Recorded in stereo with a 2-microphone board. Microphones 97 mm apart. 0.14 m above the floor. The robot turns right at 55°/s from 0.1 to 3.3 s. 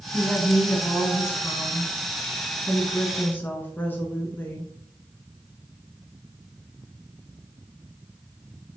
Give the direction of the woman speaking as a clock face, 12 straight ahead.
1 o'clock.